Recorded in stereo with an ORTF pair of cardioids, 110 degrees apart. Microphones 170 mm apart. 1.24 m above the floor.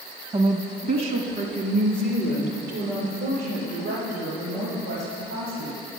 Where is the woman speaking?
40° right, 0.9 m; by 5.7 s 65° right, 7 m.